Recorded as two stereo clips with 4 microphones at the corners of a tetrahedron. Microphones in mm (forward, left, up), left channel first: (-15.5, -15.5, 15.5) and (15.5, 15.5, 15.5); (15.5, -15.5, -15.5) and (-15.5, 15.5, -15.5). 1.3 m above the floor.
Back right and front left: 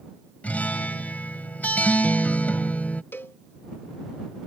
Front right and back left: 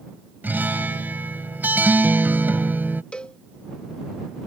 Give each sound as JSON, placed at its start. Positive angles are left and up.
{"t": 0.4, "sound": "a guitar", "azimuth_deg": 175}
{"t": 3.1, "sound": "a cowbell", "azimuth_deg": -110}